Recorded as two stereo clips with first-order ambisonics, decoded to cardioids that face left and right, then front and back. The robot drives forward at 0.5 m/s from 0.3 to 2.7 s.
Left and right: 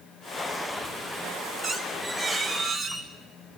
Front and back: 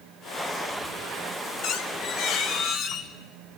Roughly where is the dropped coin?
No dropped coin in this recording.